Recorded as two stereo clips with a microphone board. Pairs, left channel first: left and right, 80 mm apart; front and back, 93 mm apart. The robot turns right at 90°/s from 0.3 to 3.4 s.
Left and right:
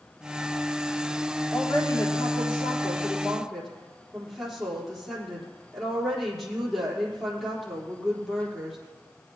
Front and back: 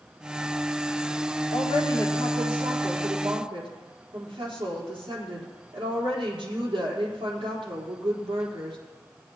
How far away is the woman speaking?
About 4 m.